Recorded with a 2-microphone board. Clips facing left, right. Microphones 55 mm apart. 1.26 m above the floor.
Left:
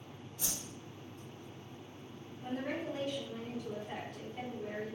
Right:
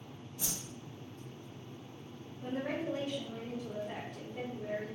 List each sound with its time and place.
0.4 s a whoosh: 15° right (ahead or behind), 1.8 m
2.4 s a woman speaking: 25° right (ahead or behind), 1.7 m